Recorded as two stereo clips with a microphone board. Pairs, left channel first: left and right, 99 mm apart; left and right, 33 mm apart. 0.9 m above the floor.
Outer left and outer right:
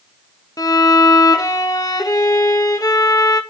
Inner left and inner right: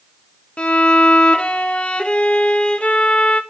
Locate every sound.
0.6 s a violin: 40° left (ahead or behind), 0.9 m